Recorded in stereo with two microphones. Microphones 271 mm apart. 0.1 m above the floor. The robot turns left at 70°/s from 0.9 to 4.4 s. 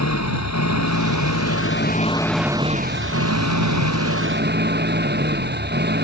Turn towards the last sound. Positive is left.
turn(degrees=-140)